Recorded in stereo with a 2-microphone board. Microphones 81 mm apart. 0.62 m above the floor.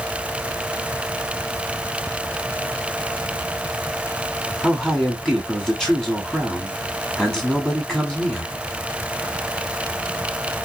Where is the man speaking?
Centre (ahead or behind), 2 m.